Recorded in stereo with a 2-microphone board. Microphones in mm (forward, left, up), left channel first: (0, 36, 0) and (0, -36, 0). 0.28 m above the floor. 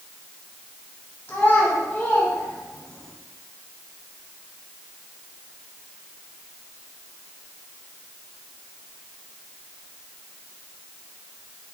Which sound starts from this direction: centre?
A child speaking, at 1.3 s.